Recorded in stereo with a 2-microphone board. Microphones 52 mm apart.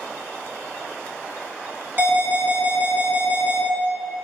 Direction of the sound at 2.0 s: 40° right (ahead or behind).